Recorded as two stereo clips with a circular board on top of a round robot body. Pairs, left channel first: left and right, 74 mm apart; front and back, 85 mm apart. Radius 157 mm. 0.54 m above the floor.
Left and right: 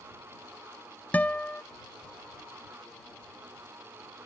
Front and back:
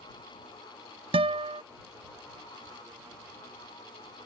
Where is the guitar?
160° left.